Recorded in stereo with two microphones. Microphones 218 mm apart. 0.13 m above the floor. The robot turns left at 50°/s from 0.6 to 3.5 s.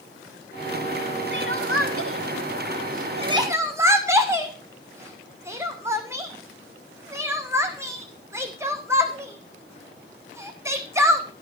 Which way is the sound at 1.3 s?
55° right (ahead or behind).